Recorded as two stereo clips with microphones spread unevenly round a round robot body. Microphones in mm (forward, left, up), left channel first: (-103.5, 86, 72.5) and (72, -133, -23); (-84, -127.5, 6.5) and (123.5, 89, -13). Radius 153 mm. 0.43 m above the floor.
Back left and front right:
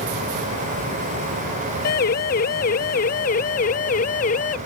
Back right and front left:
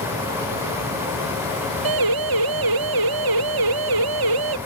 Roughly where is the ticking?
I don't hear ticking.